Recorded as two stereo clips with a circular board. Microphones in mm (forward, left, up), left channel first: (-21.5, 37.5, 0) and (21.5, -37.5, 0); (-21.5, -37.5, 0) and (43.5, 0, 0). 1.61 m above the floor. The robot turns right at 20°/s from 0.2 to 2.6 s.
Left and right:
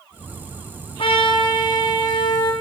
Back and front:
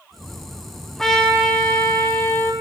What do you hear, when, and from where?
1.0 s a trumpet: 125° left, 4 m; by 2.5 s 160° left, 4 m